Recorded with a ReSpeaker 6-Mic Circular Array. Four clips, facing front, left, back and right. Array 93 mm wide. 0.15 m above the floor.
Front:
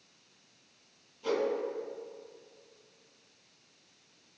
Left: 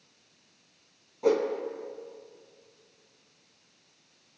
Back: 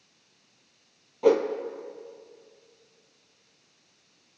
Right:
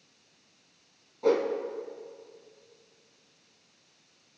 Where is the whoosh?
175° left, 1.9 m.